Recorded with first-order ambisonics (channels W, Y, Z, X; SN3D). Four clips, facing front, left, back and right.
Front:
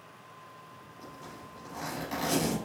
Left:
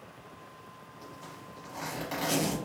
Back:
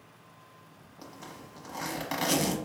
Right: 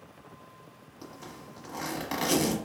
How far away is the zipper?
About 1.1 m.